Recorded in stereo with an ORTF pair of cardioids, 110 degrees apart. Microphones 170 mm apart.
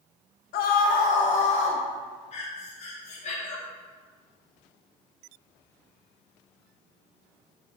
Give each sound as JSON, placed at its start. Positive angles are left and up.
{"t": 0.5, "sound": "a scream", "azimuth_deg": 70, "distance_m": 0.8}
{"t": 2.3, "sound": "breathing", "azimuth_deg": 45, "distance_m": 1.0}